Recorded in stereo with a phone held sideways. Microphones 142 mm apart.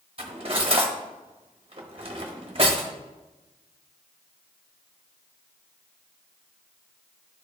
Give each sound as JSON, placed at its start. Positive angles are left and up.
{"t": 0.2, "sound": "cutlery clinking", "side_deg": -45, "distance_m": 0.9}